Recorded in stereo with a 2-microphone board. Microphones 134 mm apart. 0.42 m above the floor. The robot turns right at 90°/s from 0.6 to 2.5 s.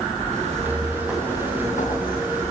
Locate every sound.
0.3 s footsteps: 55° right (ahead or behind), 3 m; by 2.5 s 55° left (ahead or behind), 4.5 m